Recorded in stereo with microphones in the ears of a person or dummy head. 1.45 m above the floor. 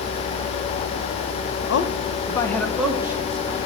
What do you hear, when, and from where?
1.7 s a man speaking: 65° left (ahead or behind), 0.9 m; by 3.6 s 15° right (ahead or behind), 1.7 m